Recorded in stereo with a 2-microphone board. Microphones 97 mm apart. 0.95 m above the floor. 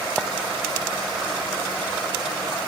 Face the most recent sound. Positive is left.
turn(degrees=15)  # may be behind; listen again after turning